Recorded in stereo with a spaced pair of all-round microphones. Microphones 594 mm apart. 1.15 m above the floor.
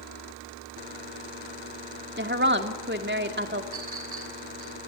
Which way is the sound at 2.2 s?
20° right (ahead or behind).